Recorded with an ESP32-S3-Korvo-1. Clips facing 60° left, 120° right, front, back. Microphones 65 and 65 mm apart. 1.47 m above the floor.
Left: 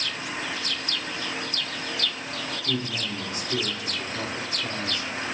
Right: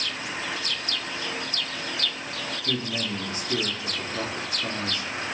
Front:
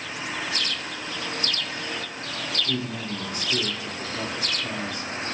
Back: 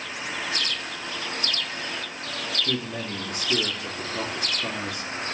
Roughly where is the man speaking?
Behind.